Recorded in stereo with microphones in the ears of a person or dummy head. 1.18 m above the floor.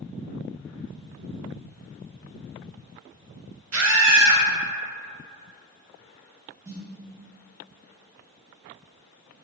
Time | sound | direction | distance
3.7 | a scream | 90° right | 0.9 m
6.7 | a snare drum | 15° right (ahead or behind) | 1.0 m